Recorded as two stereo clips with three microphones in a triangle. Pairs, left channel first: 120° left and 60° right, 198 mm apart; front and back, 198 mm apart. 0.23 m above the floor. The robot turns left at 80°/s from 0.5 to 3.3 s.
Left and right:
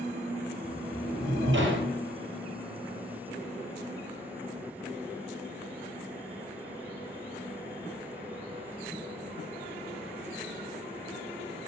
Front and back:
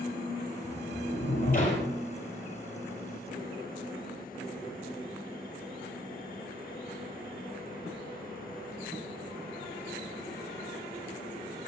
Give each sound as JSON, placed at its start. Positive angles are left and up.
{"t": 0.6, "sound": "a sliding door", "azimuth_deg": 30, "distance_m": 4.5}